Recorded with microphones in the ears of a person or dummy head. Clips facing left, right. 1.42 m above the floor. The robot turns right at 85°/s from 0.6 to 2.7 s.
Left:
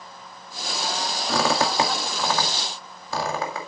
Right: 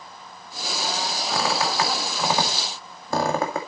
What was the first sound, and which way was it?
A squeak, 70° left (ahead or behind).